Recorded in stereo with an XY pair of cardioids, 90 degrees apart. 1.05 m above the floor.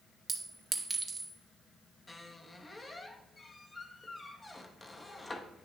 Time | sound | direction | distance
0.3 | a clink | 25° right | 1.3 m
2.1 | a squeak | 25° left | 1.0 m